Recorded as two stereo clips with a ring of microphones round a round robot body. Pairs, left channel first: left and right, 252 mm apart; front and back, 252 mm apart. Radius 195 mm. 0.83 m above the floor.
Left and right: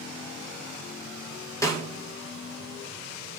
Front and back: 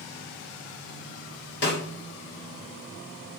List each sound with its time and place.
1.6 s a snare drum: 15° left, 0.8 m